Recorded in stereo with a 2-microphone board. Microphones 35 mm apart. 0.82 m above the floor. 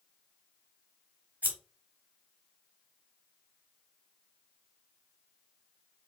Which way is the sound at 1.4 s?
45° right (ahead or behind).